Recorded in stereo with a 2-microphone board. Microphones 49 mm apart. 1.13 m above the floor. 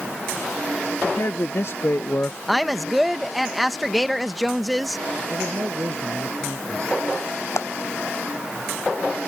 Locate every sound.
1.0 s a man speaking: 70° left (ahead or behind); by 2.4 s 30° left (ahead or behind)
2.5 s a woman speaking: centre (ahead or behind)
5.3 s a man speaking: 75° right (ahead or behind)
7.6 s a clap: 80° left